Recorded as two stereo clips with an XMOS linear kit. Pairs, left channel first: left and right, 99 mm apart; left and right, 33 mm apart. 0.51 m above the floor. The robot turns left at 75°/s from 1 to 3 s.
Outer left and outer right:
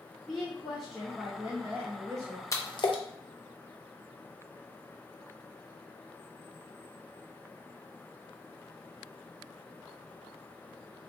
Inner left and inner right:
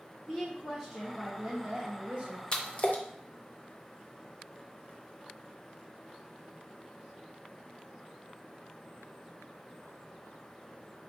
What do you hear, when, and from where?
0.3 s a woman speaking: 5° right, 0.7 m; by 2.4 s 110° right, 0.7 m
2.5 s a splash: 30° left (ahead or behind), 0.5 m; by 3.0 s 60° left (ahead or behind), 0.5 m